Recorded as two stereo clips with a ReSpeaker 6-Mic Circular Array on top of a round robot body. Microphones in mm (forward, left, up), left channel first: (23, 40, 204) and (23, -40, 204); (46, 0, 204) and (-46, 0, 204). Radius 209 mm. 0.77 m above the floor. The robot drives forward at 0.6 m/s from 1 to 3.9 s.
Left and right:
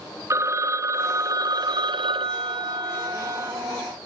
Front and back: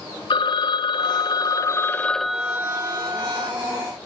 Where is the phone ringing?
35° right, 1.0 m; by 3.5 s 145° right, 1.0 m.